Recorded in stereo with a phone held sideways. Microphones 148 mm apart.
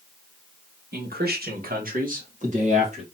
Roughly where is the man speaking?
Right.